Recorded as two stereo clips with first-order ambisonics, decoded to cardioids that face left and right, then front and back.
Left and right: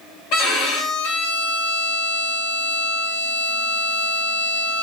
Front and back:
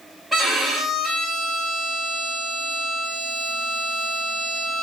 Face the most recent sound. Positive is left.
turn(degrees=90)